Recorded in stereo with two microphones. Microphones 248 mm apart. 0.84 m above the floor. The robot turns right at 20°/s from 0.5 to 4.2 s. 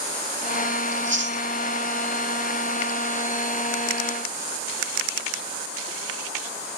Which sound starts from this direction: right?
Chewing, at 0.9 s.